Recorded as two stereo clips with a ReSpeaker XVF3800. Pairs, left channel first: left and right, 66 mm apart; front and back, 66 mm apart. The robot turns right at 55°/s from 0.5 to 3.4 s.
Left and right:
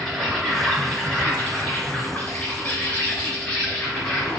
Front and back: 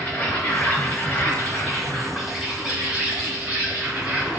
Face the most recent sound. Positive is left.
turn(degrees=155)